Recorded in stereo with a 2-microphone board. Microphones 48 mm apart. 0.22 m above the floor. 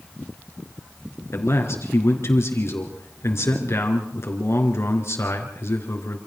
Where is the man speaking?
65° left (ahead or behind), 4 m.